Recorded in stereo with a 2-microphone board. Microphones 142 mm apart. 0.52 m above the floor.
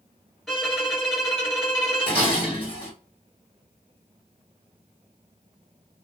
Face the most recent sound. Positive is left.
turn(degrees=35)  # may be behind; listen again after turning